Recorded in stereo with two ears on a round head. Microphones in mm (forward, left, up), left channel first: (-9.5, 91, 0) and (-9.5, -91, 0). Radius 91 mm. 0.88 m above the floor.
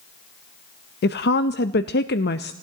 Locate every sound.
1.0 s a woman speaking: 50° left (ahead or behind), 0.5 m